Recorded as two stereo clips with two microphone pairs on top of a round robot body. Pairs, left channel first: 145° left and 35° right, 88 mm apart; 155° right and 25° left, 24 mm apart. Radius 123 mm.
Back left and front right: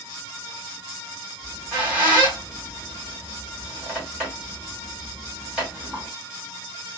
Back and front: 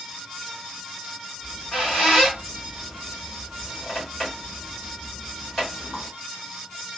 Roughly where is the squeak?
Behind right.